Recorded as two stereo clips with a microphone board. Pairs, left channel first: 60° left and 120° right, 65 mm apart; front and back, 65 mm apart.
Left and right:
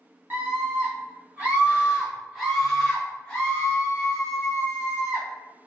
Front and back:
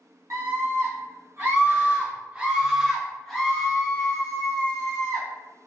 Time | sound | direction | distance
0.3 | a scream | 170° right | 1.6 m